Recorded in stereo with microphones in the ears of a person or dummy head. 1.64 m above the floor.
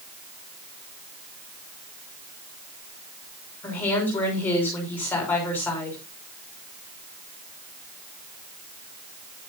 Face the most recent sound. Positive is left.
turn(degrees=5)  # may be behind; listen again after turning